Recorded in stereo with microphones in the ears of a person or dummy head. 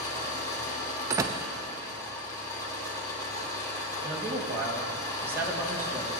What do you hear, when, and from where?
0.0 s an engine running: 20° left (ahead or behind), 2 m
1.1 s a door slam: 20° right (ahead or behind), 0.6 m
4.0 s a man speaking: 15° right (ahead or behind), 2.0 m